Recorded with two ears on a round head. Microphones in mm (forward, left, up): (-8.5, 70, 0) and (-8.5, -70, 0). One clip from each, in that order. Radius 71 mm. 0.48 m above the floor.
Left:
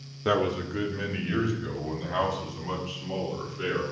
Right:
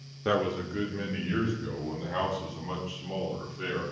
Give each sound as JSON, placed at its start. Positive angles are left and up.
{"t": 0.2, "sound": "a man speaking", "side_deg": 0, "distance_m": 0.7}